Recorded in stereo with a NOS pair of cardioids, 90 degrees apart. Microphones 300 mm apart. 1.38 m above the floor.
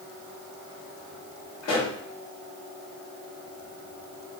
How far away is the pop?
About 1.8 m.